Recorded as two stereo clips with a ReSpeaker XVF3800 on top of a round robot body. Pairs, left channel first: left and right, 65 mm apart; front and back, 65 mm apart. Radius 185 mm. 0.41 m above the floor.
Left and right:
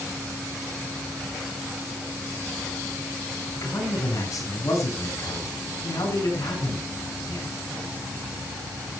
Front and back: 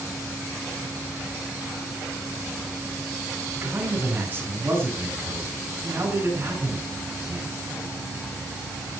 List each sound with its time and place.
3.5 s a man speaking: 125° left, 8.5 m